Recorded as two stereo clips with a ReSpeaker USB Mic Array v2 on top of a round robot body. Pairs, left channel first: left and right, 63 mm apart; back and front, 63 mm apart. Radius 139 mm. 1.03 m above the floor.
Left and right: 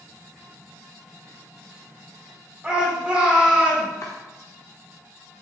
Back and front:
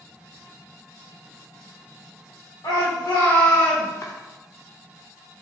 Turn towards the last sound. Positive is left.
turn(degrees=135)